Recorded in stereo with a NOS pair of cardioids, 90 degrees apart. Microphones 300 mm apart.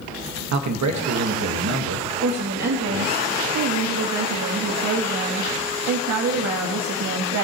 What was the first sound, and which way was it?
A man speaking, 70° right.